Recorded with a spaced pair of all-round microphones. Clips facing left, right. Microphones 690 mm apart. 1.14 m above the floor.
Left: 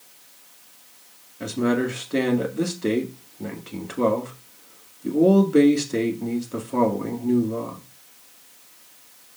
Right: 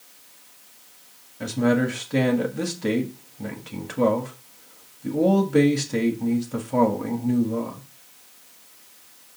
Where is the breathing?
I don't hear breathing.